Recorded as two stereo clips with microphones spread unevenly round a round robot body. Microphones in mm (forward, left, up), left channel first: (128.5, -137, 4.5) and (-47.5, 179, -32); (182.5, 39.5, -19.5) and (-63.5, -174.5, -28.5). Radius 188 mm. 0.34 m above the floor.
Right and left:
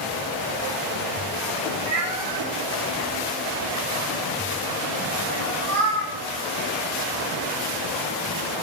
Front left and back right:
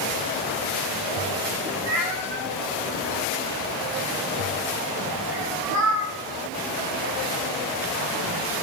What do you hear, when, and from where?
1.9 s a cat meowing: 165° right, 6.5 m; by 6.1 s 170° left, 5.5 m